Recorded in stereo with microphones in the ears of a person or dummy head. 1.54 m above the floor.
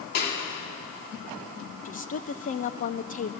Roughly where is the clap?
Left.